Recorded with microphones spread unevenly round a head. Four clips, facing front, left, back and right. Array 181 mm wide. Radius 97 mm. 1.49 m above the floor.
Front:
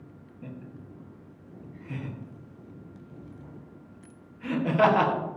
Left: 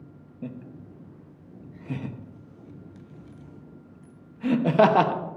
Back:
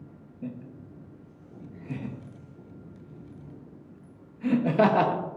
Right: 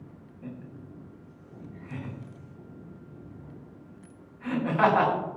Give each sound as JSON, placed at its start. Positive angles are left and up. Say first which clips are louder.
{"t": 0.4, "sound": "laughter", "louder": "left 4 dB, back 4 dB", "azimuth_deg": 110, "distance_m": 1.2}